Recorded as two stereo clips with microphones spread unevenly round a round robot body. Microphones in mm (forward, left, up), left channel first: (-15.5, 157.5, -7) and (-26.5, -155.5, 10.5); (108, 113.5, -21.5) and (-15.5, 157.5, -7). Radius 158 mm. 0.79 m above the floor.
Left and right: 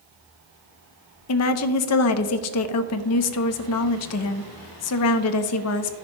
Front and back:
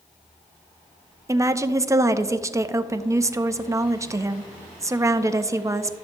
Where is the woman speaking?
90° left, 0.7 m.